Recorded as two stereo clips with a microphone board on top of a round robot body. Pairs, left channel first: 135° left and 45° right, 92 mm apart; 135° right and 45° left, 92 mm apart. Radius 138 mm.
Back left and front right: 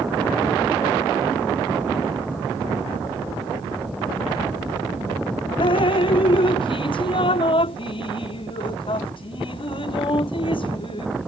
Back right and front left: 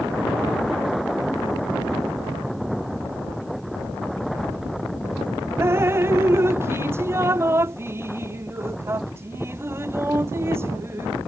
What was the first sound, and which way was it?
Dripping, 110° left.